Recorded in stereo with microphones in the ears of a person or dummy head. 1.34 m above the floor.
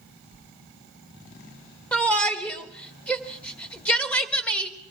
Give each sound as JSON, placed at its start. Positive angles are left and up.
{"t": 0.3, "sound": "a sliding door", "side_deg": 75, "distance_m": 1.5}
{"t": 1.9, "sound": "a shout", "side_deg": 5, "distance_m": 1.4}